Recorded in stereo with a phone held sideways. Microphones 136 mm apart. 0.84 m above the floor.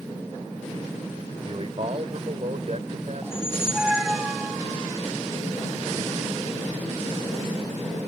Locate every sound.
1.4 s a man speaking: 45° right (ahead or behind); by 4.0 s 65° right (ahead or behind)
3.2 s a squeak: 5° right (ahead or behind)